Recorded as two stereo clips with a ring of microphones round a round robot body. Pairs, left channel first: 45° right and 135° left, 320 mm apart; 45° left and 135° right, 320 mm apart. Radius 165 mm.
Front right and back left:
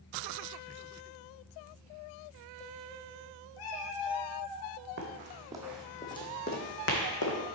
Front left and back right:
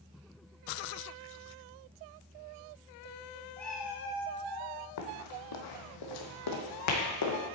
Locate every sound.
3.6 s a cat meowing: 40° right, 0.9 m; by 4.7 s 70° right, 1.7 m
5.0 s running footsteps: 80° left, 1.1 m; by 7.4 s straight ahead, 1.6 m